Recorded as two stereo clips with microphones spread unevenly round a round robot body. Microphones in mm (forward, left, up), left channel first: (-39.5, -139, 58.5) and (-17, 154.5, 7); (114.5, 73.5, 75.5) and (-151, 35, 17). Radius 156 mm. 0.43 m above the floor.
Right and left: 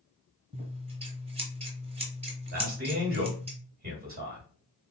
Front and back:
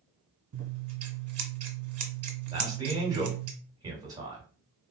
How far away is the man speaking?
About 2 m.